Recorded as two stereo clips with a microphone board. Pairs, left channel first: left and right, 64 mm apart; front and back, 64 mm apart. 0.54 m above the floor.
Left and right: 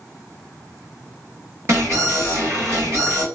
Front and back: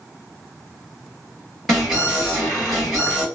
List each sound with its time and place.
1.7 s an alarm: 90° right, 2 m